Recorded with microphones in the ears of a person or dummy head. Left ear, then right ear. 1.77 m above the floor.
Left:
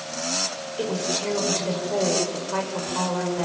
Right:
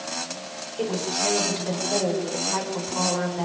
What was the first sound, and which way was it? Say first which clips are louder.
A woman speaking: right 1 dB; 5° left (ahead or behind).